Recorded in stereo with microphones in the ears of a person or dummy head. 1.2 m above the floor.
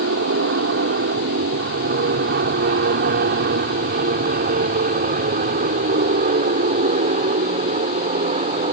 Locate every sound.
0.0 s an aircraft: 45° right (ahead or behind); by 8.7 s 25° right (ahead or behind)